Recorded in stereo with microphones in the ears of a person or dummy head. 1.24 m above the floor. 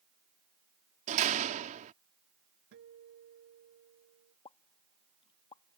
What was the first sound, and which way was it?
A door slam, 45° right (ahead or behind).